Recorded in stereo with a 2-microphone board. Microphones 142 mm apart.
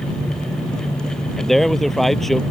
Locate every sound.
1.4 s a man speaking: centre (ahead or behind)